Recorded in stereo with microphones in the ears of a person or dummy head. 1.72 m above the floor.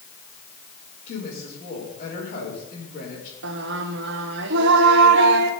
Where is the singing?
65° right (ahead or behind), 1.3 m.